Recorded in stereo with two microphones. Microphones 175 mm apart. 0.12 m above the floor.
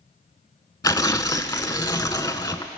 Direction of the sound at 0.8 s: 20° left (ahead or behind).